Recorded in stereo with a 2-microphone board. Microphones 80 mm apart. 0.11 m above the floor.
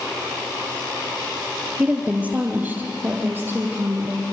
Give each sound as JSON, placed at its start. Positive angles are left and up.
{"t": 1.8, "sound": "a woman speaking", "side_deg": -15, "distance_m": 2.0}